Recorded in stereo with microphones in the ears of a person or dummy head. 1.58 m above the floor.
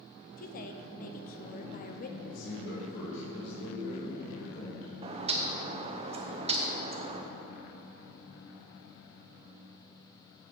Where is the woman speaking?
35° left (ahead or behind), 0.7 m.